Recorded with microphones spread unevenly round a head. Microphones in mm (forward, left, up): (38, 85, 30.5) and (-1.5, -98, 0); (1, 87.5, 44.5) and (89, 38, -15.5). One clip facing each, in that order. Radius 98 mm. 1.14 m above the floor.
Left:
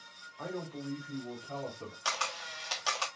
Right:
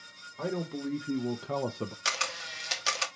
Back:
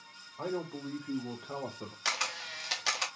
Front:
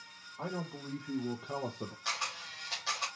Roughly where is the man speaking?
Behind right.